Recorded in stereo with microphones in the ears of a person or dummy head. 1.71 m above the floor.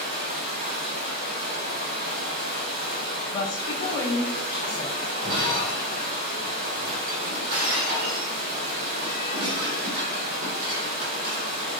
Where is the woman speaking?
30° left (ahead or behind), 1.0 m.